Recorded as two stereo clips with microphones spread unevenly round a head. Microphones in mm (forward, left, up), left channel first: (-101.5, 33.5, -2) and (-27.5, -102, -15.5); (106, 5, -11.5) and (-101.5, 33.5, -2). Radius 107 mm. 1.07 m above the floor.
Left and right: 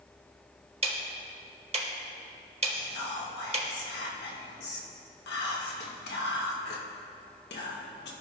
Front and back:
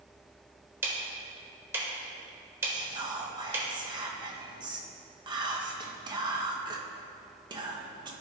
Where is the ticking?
110° right, 1.3 m.